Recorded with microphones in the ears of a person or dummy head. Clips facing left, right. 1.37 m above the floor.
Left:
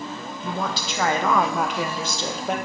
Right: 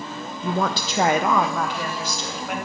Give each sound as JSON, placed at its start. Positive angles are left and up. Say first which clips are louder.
{"t": 0.4, "sound": "a woman speaking", "louder": "right 4 dB", "side_deg": -65, "distance_m": 0.6}